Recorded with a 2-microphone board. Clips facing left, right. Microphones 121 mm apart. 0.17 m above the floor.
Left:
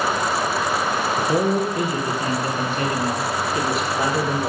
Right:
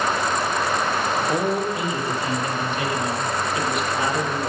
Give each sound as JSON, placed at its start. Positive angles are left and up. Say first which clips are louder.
{"t": 1.2, "sound": "a man speaking", "louder": "left 5 dB", "side_deg": 55, "distance_m": 3.5}